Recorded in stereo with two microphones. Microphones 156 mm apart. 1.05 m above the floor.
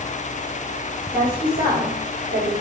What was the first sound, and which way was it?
A woman speaking, 75° left (ahead or behind).